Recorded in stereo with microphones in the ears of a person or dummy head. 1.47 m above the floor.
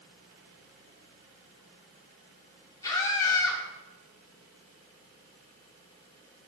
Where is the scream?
20° left (ahead or behind), 3.5 m.